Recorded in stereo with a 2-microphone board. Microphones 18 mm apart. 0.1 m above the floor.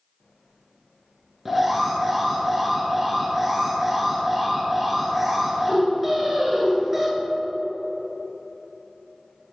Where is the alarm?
5° right (ahead or behind), 1.4 m.